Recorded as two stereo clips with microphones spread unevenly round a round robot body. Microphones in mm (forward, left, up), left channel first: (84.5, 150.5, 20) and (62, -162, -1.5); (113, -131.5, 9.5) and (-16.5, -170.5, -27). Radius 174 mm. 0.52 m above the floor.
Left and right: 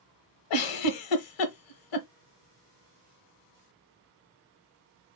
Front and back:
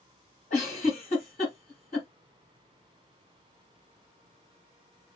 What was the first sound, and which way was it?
A giggle, 75° left.